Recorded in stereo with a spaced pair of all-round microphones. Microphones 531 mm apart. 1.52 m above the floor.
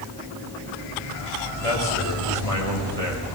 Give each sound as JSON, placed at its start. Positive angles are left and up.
{"t": 1.6, "sound": "a man speaking", "side_deg": 80, "distance_m": 8.0}